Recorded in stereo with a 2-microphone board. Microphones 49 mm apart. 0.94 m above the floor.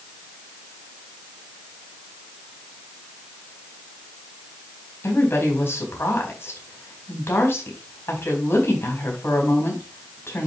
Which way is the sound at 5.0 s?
55° left (ahead or behind).